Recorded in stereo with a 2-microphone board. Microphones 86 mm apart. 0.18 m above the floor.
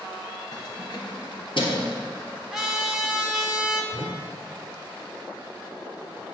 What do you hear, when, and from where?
0.5 s keys jangling: 50° left (ahead or behind), 1.6 m; by 1.9 s 70° left (ahead or behind), 2.5 m
2.5 s a trumpet: 5° right (ahead or behind), 1.0 m
3.9 s a whoosh: 40° right (ahead or behind), 0.7 m